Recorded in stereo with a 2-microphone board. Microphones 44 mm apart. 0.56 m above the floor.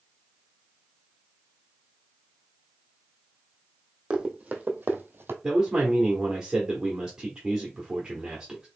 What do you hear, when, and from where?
4.1 s running footsteps: 20° right (ahead or behind), 1.2 m; by 5.3 s 55° right (ahead or behind), 1.0 m
5.4 s a man speaking: 15° right (ahead or behind), 1.2 m